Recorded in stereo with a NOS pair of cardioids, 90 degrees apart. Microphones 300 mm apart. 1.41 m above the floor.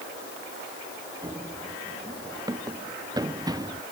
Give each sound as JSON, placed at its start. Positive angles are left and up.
{"t": 1.2, "sound": "running footsteps", "azimuth_deg": -10}